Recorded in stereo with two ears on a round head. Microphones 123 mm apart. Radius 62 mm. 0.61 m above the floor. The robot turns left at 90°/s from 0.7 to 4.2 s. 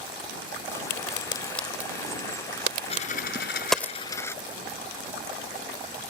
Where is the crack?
65° left (ahead or behind); by 3.9 s 20° left (ahead or behind).